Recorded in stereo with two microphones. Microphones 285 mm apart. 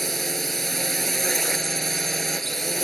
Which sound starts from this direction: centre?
A drone, at 0.0 s.